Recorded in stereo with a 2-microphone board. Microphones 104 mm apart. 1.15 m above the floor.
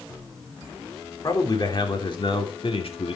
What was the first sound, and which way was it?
A man speaking, 40° left (ahead or behind).